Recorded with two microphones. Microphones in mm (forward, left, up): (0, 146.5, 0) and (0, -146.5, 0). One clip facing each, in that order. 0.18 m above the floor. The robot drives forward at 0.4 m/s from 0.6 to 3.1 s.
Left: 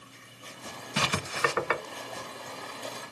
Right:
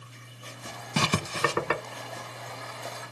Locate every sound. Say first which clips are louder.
1.0 s writing: right 3 dB; 50° right (ahead or behind), 0.6 m; by 1.8 s 35° right (ahead or behind), 0.8 m